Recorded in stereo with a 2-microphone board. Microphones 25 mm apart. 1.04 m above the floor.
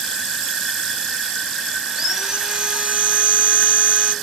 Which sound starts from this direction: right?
Sawing, at 1.9 s.